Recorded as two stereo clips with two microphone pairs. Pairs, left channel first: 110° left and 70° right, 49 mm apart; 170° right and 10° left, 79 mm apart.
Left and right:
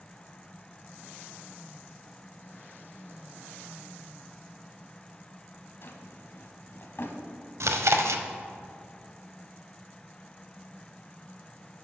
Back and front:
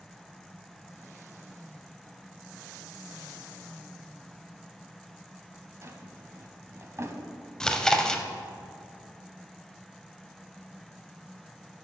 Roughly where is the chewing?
Right.